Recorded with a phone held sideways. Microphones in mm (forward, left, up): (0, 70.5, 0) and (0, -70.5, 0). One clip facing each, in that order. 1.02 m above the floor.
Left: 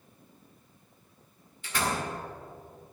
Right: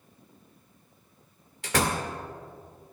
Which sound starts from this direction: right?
A door slam, at 1.6 s.